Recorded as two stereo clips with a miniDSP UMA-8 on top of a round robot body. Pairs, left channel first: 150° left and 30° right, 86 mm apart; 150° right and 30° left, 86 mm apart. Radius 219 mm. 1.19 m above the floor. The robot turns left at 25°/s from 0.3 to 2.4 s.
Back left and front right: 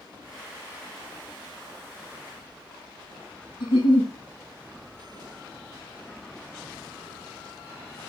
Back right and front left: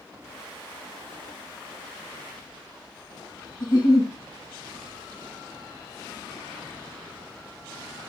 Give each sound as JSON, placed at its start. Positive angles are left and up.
{"t": 3.6, "sound": "a giggle", "azimuth_deg": 165, "distance_m": 2.5}